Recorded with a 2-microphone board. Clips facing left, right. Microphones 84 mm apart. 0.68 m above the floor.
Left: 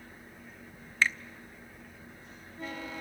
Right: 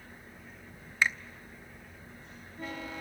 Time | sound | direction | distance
1.0 | a finger snap | 15° right (ahead or behind) | 0.6 m